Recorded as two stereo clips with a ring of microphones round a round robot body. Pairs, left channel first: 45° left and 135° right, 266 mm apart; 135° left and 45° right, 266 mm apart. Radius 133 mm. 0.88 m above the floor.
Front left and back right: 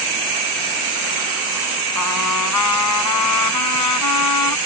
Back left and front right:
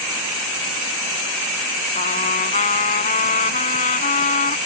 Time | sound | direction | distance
1.9 | a trumpet | 70° left | ?